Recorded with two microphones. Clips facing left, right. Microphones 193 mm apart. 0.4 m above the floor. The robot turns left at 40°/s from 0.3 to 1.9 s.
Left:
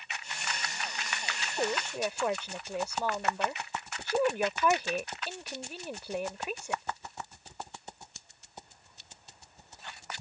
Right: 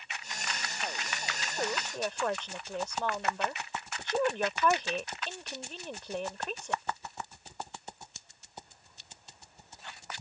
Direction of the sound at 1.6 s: 20° left (ahead or behind).